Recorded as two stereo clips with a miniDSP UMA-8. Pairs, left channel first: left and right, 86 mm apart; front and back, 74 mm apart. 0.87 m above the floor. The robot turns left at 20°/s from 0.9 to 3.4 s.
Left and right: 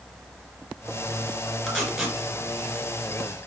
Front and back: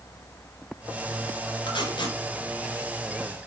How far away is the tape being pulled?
About 3 m.